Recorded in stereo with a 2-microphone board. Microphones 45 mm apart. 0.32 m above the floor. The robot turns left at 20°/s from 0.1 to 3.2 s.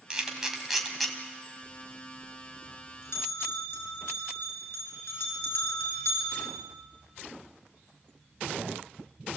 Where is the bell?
60° left (ahead or behind), 5.5 m; by 6.5 s 75° left (ahead or behind), 5.5 m.